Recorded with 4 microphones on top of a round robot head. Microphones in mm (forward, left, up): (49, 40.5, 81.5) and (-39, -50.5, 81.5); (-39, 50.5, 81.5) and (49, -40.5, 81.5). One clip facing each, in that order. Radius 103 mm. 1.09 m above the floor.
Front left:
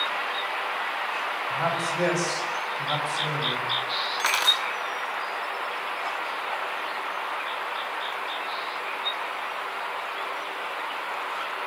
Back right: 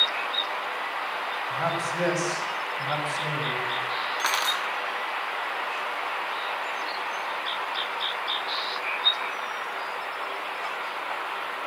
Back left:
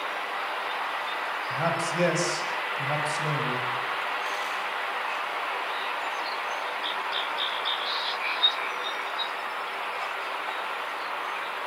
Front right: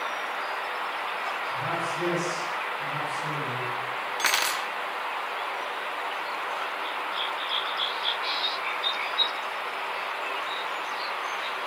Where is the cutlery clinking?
40° right, 1.5 m.